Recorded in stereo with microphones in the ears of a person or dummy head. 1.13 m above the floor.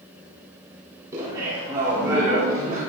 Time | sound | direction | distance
1.1 | laughter | 20° right (ahead or behind) | 3.5 m